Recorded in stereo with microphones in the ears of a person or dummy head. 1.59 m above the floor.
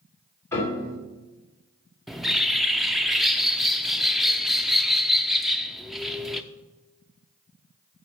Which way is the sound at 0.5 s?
15° left (ahead or behind).